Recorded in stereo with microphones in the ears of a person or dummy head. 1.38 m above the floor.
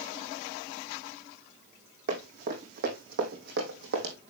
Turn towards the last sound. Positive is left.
turn(degrees=-60)  # may be behind; listen again after turning